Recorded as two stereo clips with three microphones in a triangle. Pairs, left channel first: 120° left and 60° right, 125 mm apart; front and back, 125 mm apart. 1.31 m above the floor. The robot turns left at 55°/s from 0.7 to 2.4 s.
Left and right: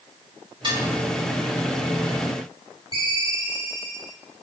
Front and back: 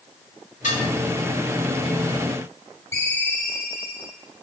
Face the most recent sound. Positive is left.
turn(degrees=70)